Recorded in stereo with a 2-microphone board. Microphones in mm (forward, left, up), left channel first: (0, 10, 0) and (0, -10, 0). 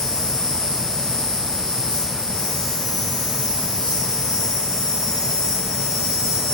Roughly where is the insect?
Left.